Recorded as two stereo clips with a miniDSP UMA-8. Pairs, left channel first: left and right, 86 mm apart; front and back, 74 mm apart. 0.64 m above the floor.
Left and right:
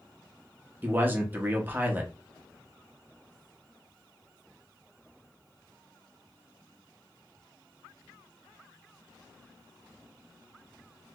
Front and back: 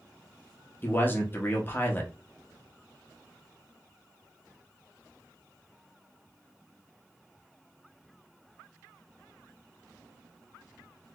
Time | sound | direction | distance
0.8 | a man speaking | 35° right | 1.0 m